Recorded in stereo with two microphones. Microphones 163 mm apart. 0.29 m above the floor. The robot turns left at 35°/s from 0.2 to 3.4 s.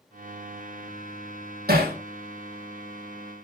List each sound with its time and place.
1.7 s hammering: 75° right (ahead or behind), 6 m; by 1.9 s 65° right (ahead or behind), 6 m